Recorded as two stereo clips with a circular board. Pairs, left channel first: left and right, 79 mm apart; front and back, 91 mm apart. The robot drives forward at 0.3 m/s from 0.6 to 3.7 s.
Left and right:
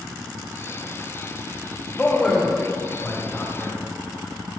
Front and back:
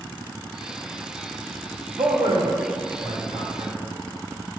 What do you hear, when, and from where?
2.0 s a man speaking: 170° left, 0.9 m; by 3.8 s 175° left, 1.4 m